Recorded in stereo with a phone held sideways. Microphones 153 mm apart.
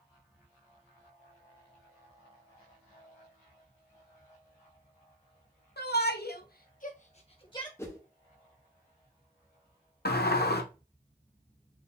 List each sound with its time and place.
5.8 s a shout: 85° left, 0.9 m; by 7.7 s 25° left (ahead or behind), 0.9 m
7.8 s a whoosh: 15° left (ahead or behind), 0.8 m
10.1 s a sliding door: 80° left, 0.6 m